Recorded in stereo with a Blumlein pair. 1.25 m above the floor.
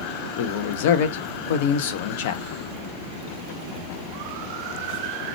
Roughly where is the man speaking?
Ahead left.